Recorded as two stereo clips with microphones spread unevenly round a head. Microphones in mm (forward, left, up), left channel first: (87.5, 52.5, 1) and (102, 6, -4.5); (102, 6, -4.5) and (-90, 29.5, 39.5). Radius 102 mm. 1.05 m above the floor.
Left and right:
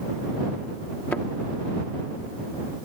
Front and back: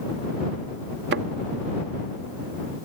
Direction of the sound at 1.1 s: 165° left.